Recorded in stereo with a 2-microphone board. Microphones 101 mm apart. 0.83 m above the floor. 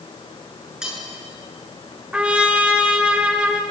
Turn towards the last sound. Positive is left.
turn(degrees=-10)  # may be behind; listen again after turning